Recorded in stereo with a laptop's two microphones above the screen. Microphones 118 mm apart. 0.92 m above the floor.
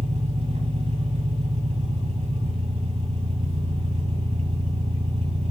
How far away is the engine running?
About 1.8 m.